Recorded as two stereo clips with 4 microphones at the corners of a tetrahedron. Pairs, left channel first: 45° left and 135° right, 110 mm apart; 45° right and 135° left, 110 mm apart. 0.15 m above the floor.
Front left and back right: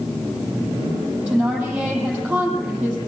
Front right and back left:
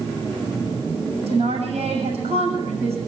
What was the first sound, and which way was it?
A woman speaking, 145° left.